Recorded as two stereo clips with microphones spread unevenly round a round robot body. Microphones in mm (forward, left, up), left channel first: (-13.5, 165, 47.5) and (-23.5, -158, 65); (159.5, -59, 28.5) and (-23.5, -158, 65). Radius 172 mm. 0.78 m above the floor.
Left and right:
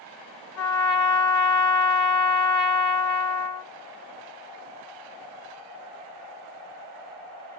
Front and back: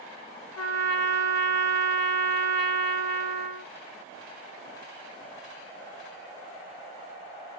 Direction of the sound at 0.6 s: 40° left.